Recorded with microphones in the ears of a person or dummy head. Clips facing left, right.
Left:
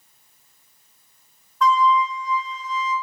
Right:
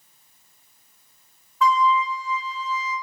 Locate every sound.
1.6 s a flute: centre (ahead or behind), 0.6 m